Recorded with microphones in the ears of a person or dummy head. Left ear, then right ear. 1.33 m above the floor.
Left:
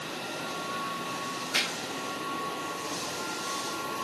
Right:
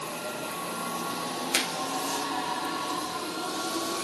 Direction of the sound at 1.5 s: 65° right (ahead or behind).